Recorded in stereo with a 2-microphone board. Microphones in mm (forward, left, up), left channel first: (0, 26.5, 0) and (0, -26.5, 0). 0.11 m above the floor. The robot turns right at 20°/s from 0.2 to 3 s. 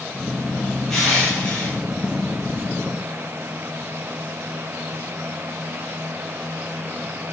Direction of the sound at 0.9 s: 10° left (ahead or behind).